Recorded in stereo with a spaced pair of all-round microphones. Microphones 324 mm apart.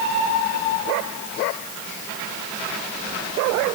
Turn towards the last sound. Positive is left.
No sound to turn to.